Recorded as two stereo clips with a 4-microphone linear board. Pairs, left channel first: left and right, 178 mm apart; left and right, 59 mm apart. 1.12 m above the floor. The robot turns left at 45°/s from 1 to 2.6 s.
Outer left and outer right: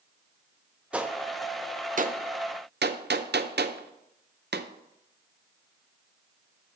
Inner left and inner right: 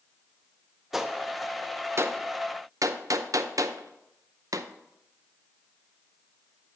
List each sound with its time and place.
0.9 s a gunshot: 5° right (ahead or behind), 0.5 m; by 4.7 s 70° right (ahead or behind), 0.5 m